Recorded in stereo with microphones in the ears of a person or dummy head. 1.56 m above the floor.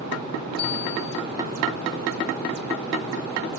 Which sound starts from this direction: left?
A bicycle bell, at 0.6 s.